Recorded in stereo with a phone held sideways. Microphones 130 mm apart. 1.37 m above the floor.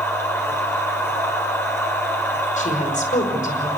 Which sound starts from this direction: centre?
A machine running, at 0.0 s.